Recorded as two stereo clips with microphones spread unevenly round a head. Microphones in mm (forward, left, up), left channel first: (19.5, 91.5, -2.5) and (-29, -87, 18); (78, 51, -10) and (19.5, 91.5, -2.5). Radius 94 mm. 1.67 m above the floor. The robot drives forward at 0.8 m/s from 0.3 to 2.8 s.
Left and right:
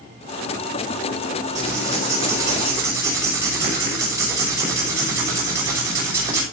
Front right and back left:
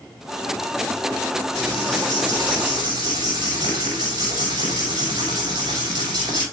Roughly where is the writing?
Behind.